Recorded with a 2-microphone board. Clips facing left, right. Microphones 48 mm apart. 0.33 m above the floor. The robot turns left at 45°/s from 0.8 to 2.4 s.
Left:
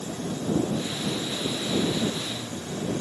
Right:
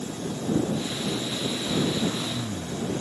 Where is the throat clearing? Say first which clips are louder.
Even; 35° right; by 2.9 s 70° right.